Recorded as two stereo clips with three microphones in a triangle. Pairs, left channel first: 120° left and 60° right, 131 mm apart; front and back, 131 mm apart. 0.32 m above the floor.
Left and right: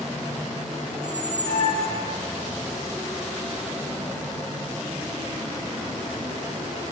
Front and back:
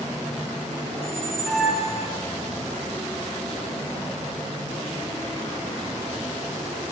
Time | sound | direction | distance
0.9 | a squeak | 95° left | 1.1 m